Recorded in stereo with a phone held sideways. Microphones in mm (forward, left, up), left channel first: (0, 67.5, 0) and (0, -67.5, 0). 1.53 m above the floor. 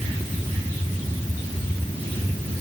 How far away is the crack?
No crack in this recording.